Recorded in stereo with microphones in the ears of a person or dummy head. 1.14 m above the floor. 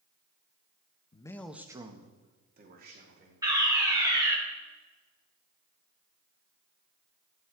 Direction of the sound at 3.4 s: 25° right (ahead or behind).